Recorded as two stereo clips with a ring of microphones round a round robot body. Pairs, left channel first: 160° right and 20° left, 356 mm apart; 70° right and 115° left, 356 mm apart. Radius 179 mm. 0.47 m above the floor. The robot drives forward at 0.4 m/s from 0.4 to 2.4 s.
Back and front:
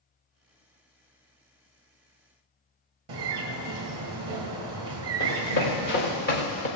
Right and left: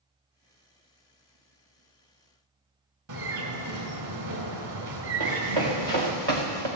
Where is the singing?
I don't hear singing.